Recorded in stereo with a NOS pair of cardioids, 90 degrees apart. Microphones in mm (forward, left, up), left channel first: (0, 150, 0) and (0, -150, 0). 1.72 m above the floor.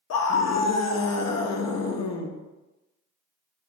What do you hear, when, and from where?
0.1 s a scream: 55° left, 0.7 m